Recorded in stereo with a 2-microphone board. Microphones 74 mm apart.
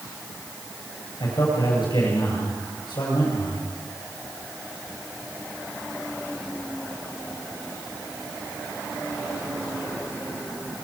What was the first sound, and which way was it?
A man speaking, 75° left (ahead or behind).